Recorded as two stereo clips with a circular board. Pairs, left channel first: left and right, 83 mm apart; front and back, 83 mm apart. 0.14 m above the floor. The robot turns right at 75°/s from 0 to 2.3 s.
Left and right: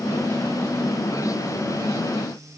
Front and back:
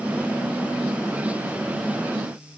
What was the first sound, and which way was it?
Only background noise.